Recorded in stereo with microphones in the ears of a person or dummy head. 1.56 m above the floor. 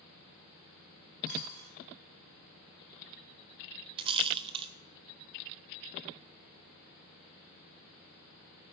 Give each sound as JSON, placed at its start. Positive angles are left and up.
{"t": 1.3, "sound": "a dropped coin", "side_deg": -50, "distance_m": 6.0}
{"t": 4.0, "sound": "a rattle", "side_deg": -25, "distance_m": 0.9}